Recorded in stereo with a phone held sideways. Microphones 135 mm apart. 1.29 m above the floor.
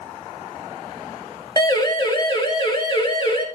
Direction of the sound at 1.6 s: 30° left (ahead or behind).